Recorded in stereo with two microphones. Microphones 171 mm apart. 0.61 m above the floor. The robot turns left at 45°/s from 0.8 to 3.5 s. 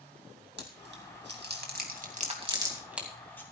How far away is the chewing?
About 2.5 m.